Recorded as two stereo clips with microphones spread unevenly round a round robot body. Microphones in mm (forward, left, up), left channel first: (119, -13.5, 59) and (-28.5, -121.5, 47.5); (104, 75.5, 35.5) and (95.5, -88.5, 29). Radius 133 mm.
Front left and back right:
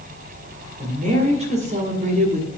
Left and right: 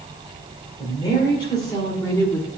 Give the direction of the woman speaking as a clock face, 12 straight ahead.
7 o'clock.